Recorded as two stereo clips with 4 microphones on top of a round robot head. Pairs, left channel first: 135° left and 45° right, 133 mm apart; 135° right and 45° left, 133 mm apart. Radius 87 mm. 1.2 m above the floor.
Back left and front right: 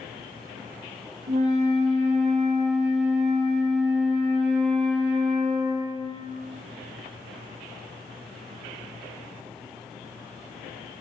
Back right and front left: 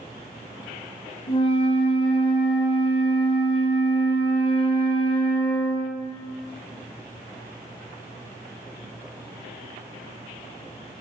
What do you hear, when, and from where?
1.3 s a flute: 85° right, 0.6 m